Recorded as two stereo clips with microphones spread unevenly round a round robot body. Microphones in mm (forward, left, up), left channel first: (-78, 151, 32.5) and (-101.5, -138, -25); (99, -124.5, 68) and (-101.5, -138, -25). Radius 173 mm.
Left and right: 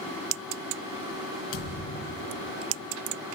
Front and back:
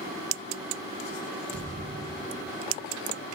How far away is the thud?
About 3.5 m.